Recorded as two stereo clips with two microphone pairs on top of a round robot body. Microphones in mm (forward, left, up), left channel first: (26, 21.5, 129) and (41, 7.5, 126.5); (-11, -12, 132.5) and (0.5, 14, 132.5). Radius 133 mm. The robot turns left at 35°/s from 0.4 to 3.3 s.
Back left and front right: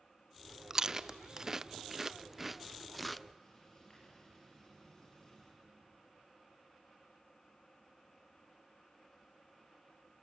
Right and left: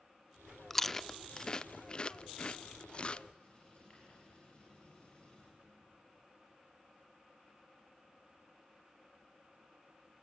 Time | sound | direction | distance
0.7 | chewing | 40° right | 0.5 m
3.4 | writing | 160° right | 8 m